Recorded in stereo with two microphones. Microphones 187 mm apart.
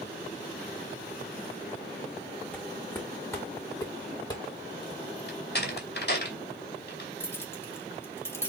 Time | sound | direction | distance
2.5 | footsteps | 10° left (ahead or behind) | 3 m
5.3 | a door slam | 60° left (ahead or behind) | 2.5 m
7.2 | keys jangling | 10° left (ahead or behind) | 2 m